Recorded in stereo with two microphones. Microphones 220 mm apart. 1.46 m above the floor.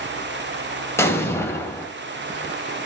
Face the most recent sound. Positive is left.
turn(degrees=10)  # may be behind; listen again after turning